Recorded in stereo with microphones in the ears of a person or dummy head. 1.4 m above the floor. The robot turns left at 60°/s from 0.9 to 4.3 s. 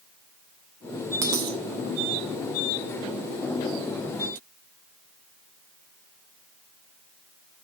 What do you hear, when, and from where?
1.2 s a dropped coin: 20° right (ahead or behind), 1.1 m; by 1.6 s 35° right (ahead or behind), 1.1 m